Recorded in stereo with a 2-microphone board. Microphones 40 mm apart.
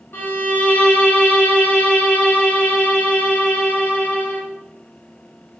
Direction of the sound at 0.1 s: 60° left (ahead or behind).